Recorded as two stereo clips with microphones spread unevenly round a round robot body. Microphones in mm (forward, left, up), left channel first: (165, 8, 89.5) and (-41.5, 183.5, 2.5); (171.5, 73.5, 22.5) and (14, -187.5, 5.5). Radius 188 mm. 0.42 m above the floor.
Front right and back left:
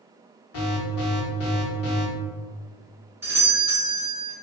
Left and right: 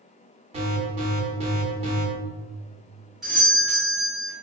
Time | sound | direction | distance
0.5 | an alarm | 70° right | 1.0 m
3.2 | a doorbell | 160° left | 1.5 m